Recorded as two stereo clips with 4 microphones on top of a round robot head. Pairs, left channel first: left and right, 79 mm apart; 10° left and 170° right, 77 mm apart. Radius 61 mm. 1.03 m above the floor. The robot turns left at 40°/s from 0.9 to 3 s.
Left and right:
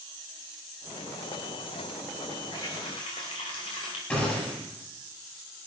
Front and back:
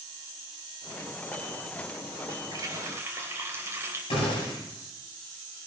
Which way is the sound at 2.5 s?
150° left.